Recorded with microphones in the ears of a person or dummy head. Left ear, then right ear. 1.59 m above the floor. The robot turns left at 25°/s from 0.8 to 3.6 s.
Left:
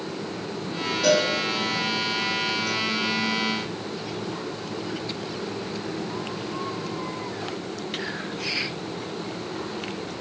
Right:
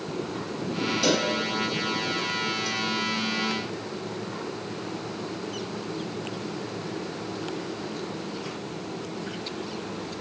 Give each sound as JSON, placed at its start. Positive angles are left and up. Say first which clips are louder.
{"t": 1.0, "sound": "a cowbell", "louder": "left 5 dB", "side_deg": -50, "distance_m": 2.0}